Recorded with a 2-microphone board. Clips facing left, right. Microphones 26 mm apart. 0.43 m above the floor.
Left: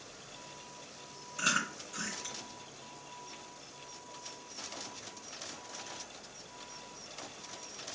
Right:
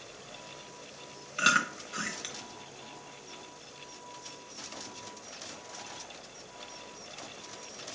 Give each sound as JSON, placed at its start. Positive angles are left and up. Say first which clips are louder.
{"t": 1.4, "sound": "chewing", "louder": "right 6 dB", "side_deg": -65, "distance_m": 1.1}